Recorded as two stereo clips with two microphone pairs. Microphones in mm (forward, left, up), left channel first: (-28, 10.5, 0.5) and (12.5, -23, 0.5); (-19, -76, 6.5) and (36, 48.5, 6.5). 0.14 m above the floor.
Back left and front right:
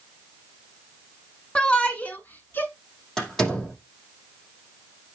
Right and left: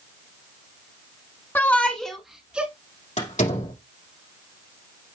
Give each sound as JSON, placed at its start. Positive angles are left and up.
{"t": 1.6, "sound": "a shout", "azimuth_deg": -170, "distance_m": 1.2}
{"t": 3.2, "sound": "a door slam", "azimuth_deg": -140, "distance_m": 5.0}